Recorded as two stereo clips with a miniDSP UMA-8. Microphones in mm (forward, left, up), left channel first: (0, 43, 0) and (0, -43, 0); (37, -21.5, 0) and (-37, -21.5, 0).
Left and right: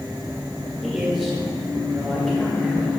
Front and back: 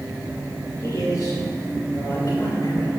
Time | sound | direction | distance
0.8 | a man speaking | straight ahead | 2 m